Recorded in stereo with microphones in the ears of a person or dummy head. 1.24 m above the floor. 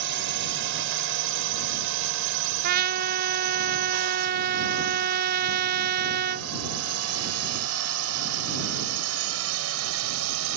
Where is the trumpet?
50° right (ahead or behind).